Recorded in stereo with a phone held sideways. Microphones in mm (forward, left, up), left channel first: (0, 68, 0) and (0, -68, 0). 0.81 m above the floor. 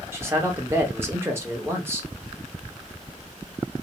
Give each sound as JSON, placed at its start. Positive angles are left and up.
{"t": 0.1, "sound": "a man speaking", "side_deg": -20, "distance_m": 1.0}